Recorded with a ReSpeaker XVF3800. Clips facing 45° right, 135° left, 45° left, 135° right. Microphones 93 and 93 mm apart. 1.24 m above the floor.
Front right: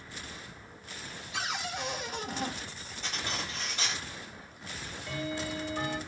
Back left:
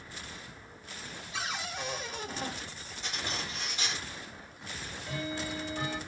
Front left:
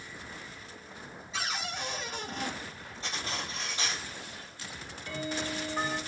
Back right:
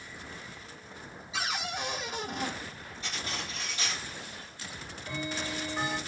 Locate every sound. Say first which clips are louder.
1.3 s a cupboard door: front right 2 dB, back right 2 dB; 50° right, 1.1 m
3.0 s cutlery clinking: front right 1 dB, front left 1 dB; 10° right, 3 m
4.7 s ticking: even, back right 1 dB; 55° right, 1.6 m